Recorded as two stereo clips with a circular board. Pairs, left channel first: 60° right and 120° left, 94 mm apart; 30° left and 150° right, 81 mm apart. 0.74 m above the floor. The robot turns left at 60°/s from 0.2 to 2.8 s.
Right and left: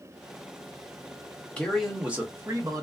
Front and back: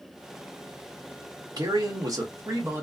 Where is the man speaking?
135° right, 1.1 m; by 2.8 s 150° left, 1.1 m.